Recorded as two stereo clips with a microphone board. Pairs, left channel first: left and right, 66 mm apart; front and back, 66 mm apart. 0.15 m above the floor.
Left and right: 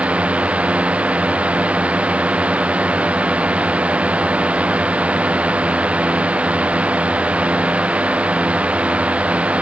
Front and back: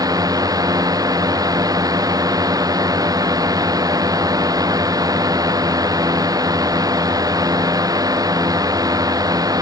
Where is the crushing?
No crushing in this recording.